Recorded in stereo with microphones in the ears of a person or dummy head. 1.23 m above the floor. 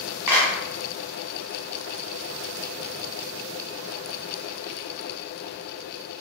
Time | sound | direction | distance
0.3 | a clap | 10° right (ahead or behind) | 1.3 m